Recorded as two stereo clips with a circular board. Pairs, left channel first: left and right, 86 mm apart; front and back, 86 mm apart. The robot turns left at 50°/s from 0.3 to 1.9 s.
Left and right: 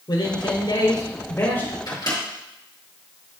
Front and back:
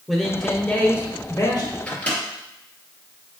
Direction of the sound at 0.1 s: 100° left.